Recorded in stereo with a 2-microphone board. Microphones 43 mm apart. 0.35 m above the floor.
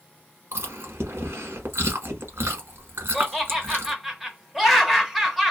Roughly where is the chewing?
Right.